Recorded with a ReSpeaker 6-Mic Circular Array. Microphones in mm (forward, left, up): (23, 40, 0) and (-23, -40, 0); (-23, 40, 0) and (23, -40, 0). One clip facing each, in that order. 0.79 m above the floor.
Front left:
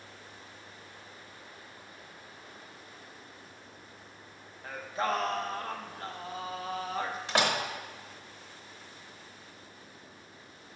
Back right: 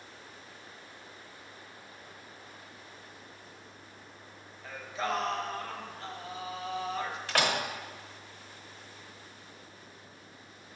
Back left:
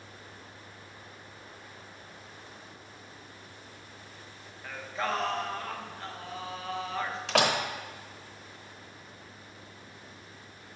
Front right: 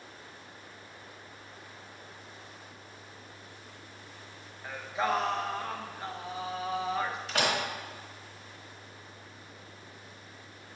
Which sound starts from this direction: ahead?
Singing, at 4.6 s.